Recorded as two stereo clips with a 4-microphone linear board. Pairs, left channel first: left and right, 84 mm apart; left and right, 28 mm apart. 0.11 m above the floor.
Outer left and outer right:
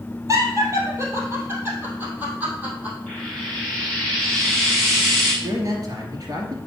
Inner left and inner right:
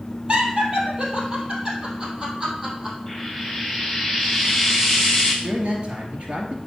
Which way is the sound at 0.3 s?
40° right (ahead or behind).